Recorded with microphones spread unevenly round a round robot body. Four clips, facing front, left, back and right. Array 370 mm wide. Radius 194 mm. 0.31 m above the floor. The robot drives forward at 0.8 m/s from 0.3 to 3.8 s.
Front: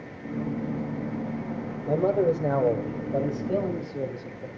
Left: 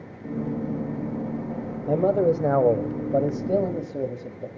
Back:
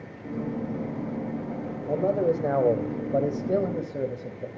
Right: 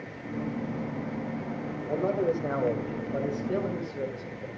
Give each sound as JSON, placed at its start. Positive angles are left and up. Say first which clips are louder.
{"t": 1.9, "sound": "a man speaking", "louder": "left 7 dB, front 1 dB", "azimuth_deg": 75, "distance_m": 1.9}